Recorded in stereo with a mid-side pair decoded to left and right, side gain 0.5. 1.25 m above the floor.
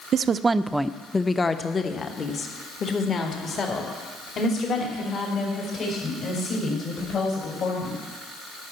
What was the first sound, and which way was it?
A woman speaking, 55° right.